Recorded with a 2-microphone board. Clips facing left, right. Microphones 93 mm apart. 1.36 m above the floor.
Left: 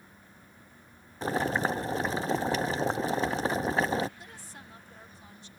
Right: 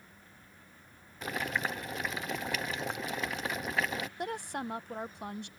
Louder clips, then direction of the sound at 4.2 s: Right 13 dB; 65° right (ahead or behind).